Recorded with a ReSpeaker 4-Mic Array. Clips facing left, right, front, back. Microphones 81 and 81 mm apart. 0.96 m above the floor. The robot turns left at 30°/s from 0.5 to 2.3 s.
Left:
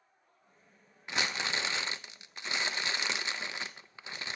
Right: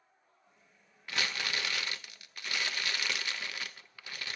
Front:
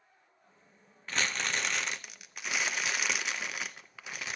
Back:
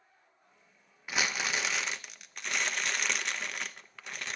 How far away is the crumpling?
About 0.6 m.